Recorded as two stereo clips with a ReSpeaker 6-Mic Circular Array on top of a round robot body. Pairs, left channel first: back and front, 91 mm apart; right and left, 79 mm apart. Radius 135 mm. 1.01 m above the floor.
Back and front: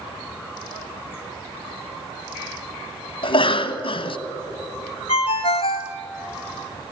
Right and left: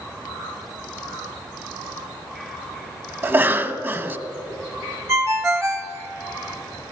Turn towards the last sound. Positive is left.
turn(degrees=150)